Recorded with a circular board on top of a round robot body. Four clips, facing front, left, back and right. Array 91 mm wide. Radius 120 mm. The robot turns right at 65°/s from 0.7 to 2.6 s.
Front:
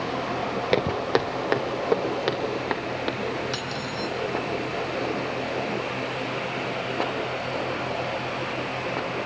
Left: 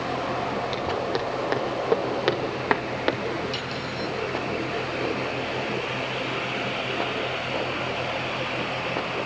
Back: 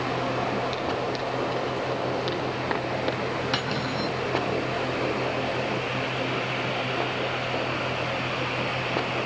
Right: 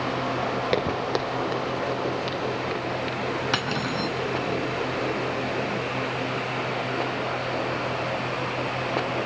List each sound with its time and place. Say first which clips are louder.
0.7 s footsteps: right 2 dB, front 5 dB; 30° right, 1.5 m; by 3.2 s 80° left, 3 m
3.5 s cutlery clinking: right 4 dB, back 3 dB; 110° right, 3.5 m